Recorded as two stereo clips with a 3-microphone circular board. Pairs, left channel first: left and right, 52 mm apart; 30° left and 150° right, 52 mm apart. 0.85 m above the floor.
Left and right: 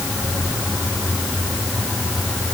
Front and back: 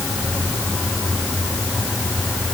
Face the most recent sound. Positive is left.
No sound to turn to.